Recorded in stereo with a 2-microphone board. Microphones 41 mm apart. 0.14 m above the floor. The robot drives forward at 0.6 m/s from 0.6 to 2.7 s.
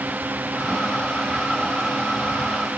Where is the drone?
45° right (ahead or behind); by 2.8 s 40° right (ahead or behind).